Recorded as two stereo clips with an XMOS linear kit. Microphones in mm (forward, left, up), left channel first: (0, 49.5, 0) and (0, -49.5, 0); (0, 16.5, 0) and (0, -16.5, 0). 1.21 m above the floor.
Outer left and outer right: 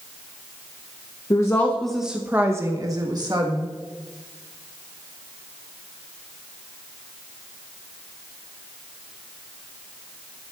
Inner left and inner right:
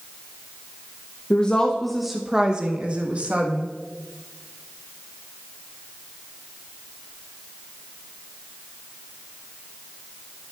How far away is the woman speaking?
About 0.7 m.